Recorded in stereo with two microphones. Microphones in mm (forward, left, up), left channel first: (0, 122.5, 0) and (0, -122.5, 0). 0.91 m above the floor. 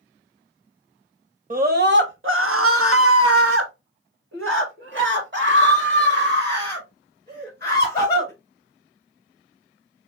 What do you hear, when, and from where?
1.5 s a scream: 35° right (ahead or behind), 1.1 m; by 8.3 s 40° right (ahead or behind), 4 m